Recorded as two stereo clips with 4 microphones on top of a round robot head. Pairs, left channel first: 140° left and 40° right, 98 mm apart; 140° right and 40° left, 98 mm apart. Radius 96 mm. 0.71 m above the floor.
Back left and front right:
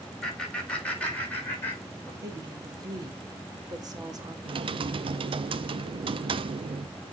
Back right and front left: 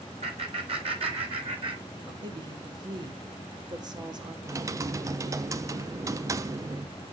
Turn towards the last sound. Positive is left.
turn(degrees=-15)